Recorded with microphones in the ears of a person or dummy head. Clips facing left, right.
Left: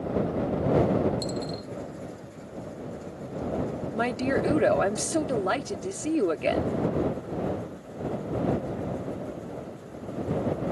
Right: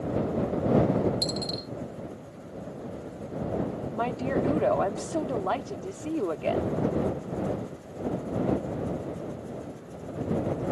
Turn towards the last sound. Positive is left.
turn(degrees=25)  # may be behind; listen again after turning